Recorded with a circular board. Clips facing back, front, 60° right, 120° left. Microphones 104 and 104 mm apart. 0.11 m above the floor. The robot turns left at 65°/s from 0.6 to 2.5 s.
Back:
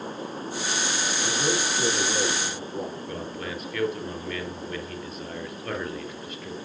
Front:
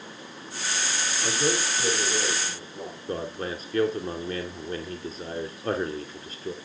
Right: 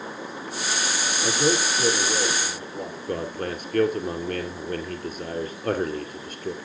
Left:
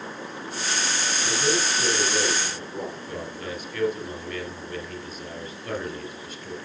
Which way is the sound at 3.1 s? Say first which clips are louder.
Front 2 dB, right 5 dB; 50° right.